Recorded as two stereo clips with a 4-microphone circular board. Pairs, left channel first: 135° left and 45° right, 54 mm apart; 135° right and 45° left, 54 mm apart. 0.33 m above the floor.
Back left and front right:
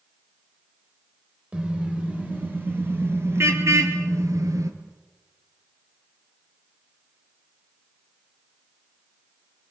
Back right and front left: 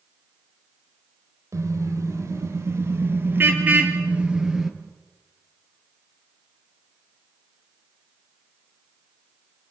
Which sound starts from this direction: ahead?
A car horn, at 1.5 s.